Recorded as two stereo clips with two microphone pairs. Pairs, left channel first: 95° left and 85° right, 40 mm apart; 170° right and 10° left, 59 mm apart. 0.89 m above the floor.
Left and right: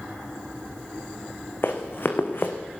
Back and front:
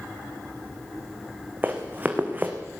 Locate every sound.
1.6 s running footsteps: 65° left, 2.5 m